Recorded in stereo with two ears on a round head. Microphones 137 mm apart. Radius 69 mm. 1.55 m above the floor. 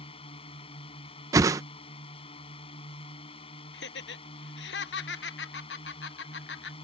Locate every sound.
0.0 s a drone: 35° left (ahead or behind)
1.3 s a whoosh: 20° right (ahead or behind)
3.7 s laughter: 80° left